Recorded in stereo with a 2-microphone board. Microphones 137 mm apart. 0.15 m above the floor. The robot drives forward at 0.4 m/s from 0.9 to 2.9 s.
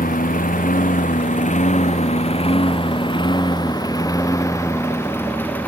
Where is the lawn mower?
85° left; by 5.7 s 10° left (ahead or behind).